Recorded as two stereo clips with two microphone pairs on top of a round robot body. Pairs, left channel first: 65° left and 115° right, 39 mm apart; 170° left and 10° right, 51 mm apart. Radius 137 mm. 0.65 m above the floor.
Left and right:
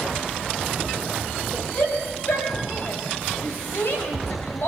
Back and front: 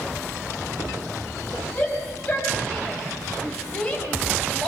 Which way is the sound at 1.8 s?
110° left.